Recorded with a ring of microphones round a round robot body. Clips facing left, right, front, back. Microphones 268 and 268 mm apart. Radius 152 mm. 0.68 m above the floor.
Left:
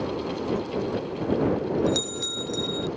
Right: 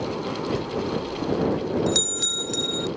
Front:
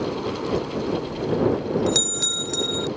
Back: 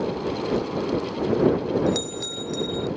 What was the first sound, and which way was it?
A bell, 40° right.